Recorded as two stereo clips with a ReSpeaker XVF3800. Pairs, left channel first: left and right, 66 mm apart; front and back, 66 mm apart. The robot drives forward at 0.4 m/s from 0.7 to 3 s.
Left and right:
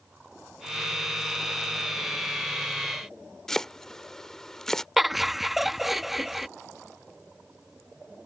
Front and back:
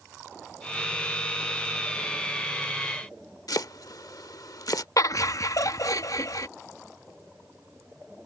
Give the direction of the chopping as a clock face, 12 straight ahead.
12 o'clock.